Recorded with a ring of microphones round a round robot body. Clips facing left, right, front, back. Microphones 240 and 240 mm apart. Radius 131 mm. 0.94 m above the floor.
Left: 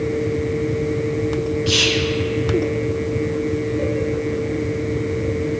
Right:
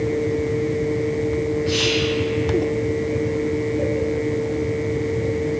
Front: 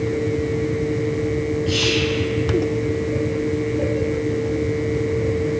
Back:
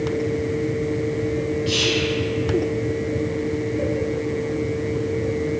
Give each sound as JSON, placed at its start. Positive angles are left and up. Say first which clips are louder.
{"t": 1.7, "sound": "whispering", "louder": "even, front 1 dB", "azimuth_deg": 120, "distance_m": 0.5}